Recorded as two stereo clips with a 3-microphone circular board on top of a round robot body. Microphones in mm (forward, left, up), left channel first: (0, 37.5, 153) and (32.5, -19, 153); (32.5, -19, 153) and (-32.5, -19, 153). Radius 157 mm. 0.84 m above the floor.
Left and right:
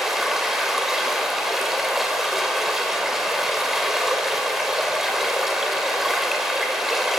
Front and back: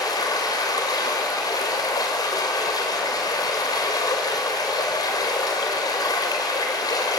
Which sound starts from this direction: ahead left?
Running water, at 0.0 s.